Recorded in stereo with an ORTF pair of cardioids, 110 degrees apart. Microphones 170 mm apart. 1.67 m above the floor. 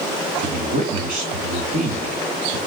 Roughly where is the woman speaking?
Ahead right.